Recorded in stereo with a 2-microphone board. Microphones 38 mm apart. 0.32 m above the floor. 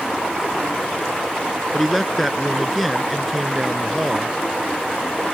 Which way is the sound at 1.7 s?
Centre (ahead or behind).